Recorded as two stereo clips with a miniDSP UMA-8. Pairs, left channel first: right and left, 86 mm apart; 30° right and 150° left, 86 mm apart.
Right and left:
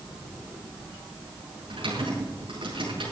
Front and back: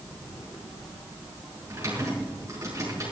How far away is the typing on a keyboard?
About 6.5 m.